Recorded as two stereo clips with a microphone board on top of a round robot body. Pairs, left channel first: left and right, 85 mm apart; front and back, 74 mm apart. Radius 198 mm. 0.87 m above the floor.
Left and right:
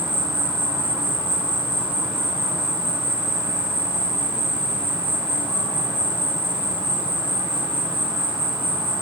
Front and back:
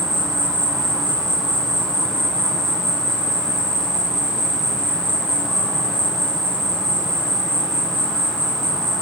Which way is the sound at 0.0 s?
85° right.